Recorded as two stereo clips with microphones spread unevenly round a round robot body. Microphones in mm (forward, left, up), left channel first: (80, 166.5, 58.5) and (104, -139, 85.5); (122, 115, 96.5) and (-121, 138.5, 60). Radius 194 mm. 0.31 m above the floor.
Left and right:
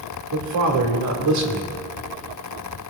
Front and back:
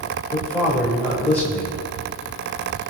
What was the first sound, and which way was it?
A man speaking, 95° right.